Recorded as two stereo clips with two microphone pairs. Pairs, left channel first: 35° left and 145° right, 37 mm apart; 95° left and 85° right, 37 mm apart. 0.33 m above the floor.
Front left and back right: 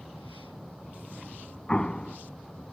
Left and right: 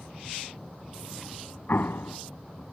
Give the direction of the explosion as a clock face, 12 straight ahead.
9 o'clock.